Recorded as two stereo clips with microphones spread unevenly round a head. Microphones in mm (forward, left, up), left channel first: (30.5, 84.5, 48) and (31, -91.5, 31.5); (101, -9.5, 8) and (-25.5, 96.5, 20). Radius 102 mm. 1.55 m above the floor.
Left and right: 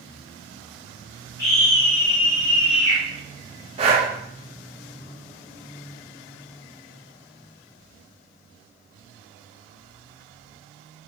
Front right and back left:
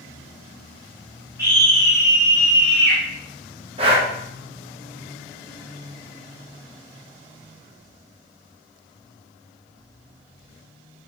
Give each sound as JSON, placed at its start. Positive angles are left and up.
{"t": 1.4, "sound": "a scream", "azimuth_deg": 65, "distance_m": 3.5}
{"t": 3.8, "sound": "breathing", "azimuth_deg": -155, "distance_m": 1.6}